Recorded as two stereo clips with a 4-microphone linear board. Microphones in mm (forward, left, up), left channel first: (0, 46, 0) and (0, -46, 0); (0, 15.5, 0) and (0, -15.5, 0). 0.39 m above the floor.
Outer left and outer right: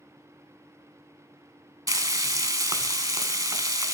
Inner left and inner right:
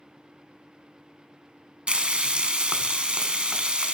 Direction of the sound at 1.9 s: 45° right (ahead or behind).